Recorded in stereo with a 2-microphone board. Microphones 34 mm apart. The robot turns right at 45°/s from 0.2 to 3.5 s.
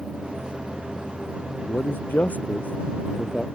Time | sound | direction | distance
1.7 | a man speaking | 80° left | ?